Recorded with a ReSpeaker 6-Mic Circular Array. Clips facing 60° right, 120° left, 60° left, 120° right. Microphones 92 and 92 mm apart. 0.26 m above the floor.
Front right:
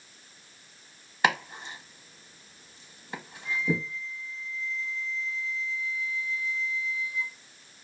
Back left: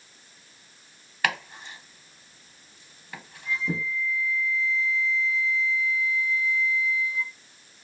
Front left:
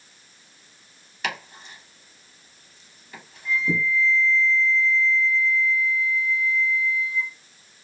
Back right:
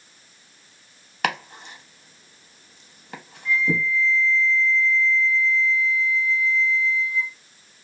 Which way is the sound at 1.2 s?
125° right.